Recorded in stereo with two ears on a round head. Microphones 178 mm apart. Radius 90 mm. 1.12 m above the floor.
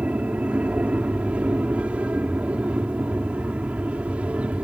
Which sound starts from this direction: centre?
An aircraft, at 0.0 s.